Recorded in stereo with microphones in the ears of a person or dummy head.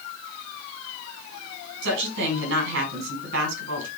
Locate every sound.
1.8 s a woman speaking: 70° right (ahead or behind), 5.5 m